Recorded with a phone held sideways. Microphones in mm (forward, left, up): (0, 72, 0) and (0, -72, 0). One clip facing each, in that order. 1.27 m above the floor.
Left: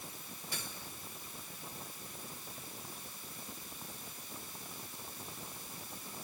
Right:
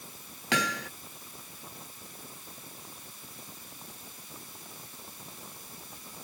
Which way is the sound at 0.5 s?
85° right.